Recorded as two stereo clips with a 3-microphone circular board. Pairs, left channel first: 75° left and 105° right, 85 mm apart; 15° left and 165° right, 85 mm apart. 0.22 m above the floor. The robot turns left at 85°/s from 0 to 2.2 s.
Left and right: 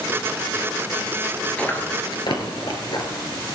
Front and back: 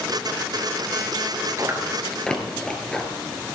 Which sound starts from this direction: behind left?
Chewing, at 1.6 s.